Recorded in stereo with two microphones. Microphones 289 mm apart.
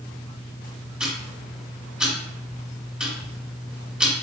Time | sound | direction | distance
1.0 | ticking | 5° right (ahead or behind) | 1.3 m